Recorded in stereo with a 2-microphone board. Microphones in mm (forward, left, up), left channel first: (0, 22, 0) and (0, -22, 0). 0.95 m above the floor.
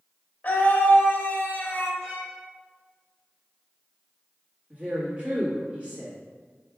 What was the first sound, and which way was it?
A scream, 35° left (ahead or behind).